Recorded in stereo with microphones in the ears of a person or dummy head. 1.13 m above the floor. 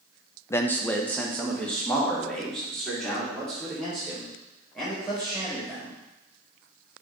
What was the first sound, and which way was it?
A man speaking, 15° left (ahead or behind).